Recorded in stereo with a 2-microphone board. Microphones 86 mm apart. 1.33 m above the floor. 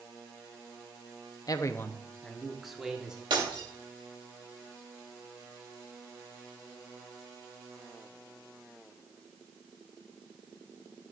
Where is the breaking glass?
75° right (ahead or behind), 3 m.